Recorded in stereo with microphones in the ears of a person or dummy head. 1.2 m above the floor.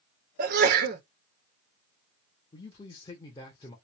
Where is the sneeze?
55° right (ahead or behind), 1.0 m.